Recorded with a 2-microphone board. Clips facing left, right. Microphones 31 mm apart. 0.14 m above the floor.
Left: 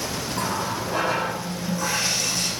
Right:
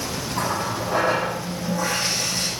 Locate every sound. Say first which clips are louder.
0.3 s a running tap: right 2 dB; 15° right (ahead or behind), 4 m